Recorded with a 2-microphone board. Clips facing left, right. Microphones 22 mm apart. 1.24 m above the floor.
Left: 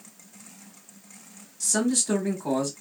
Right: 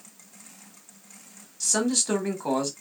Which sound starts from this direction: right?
A man speaking, at 1.6 s.